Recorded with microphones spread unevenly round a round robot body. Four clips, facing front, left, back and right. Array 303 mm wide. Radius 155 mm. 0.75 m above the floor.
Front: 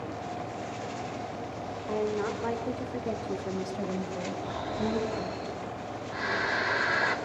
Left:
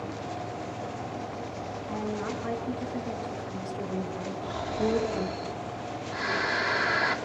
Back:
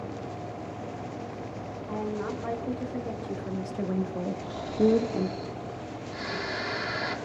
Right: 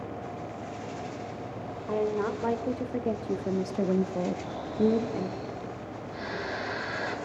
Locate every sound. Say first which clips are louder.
1.9 s a woman speaking: right 6 dB, front 3 dB; 60° right, 3 m; by 5.4 s 175° left, 1.4 m
4.4 s snoring: even, back 9 dB; 45° left, 4 m